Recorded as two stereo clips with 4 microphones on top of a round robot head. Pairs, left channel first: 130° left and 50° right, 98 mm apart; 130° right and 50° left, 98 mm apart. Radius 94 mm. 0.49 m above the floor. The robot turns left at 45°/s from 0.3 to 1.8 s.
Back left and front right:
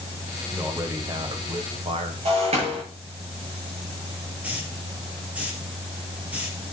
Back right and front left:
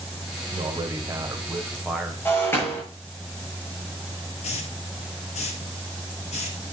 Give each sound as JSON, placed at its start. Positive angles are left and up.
{"t": 0.5, "sound": "a man speaking", "azimuth_deg": 20, "distance_m": 2.0}
{"t": 2.2, "sound": "breaking glass", "azimuth_deg": -60, "distance_m": 7.0}
{"t": 4.4, "sound": "a hiss", "azimuth_deg": -125, "distance_m": 3.0}